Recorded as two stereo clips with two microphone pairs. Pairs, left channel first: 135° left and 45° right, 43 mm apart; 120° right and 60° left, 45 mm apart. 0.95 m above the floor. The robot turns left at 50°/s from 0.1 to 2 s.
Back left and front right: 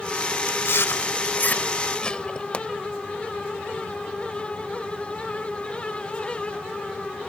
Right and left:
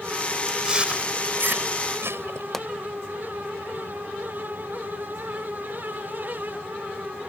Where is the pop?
175° left.